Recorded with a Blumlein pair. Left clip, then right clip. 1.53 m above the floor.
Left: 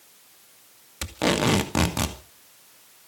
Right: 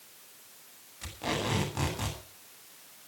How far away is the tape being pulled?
About 2.5 m.